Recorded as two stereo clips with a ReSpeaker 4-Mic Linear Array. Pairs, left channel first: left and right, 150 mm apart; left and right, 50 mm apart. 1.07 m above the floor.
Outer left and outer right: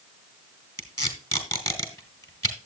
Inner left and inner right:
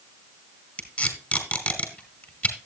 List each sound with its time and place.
0.8 s tape being pulled: 20° left (ahead or behind), 2.5 m